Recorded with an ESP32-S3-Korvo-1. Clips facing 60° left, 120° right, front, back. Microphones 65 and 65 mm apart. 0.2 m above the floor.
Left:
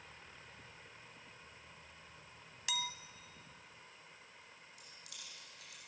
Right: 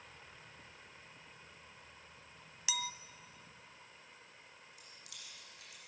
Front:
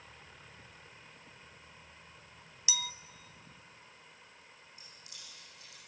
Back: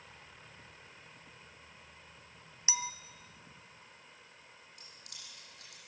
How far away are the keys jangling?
About 6.5 m.